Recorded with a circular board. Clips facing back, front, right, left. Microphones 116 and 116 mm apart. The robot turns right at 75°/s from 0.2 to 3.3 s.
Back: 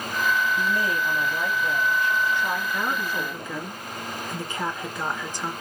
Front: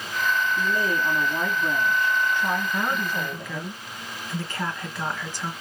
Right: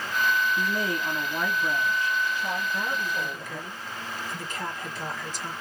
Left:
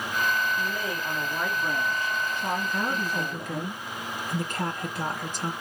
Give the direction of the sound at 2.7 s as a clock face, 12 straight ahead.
10 o'clock.